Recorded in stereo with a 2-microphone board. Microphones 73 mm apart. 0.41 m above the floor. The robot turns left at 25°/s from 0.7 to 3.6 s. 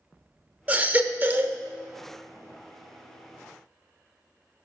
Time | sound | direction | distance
0.7 | a baby crying | 25° right (ahead or behind) | 0.7 m